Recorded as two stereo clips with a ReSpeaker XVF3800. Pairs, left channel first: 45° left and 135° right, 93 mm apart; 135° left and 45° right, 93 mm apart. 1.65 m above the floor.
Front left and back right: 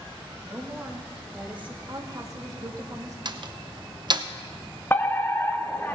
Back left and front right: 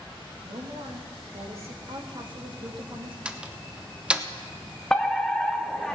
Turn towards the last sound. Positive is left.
turn(degrees=60)